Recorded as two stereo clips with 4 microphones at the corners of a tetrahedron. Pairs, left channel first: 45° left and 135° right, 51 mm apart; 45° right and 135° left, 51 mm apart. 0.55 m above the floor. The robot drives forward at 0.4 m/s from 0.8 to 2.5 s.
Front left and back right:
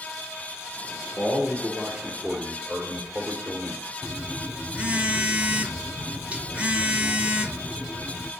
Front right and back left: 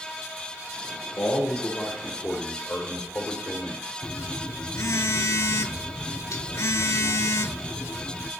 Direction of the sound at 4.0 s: 70° right.